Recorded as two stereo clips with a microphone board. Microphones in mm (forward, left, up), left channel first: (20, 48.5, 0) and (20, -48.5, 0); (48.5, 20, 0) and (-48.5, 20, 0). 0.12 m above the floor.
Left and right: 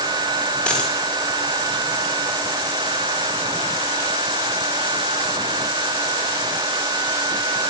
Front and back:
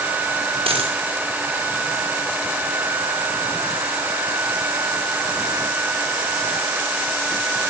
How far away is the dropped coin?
About 5.5 m.